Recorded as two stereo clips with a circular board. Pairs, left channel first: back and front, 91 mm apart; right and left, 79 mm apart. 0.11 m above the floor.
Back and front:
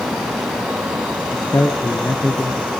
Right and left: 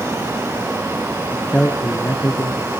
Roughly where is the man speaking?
Behind.